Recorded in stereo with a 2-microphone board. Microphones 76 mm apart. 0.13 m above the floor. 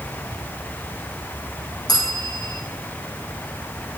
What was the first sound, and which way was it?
A bell, 60° left (ahead or behind).